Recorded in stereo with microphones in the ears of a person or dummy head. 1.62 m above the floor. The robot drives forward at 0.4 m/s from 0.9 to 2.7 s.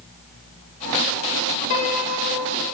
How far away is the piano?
About 0.6 m.